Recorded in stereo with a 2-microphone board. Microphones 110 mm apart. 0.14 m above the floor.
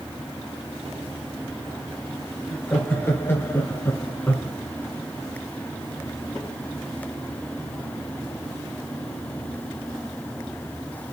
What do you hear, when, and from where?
2.5 s laughter: 15° left (ahead or behind), 3 m; by 4.5 s 20° left (ahead or behind), 1.6 m